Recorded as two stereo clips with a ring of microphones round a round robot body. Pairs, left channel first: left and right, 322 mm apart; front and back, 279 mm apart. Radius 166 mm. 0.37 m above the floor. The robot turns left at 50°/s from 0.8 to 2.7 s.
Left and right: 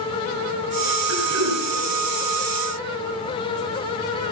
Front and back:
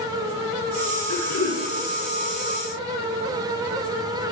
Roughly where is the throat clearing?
Ahead right.